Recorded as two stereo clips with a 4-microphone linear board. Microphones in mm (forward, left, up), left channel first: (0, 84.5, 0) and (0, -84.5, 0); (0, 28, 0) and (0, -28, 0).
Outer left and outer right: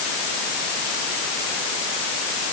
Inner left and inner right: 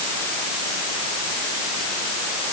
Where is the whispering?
I don't hear whispering.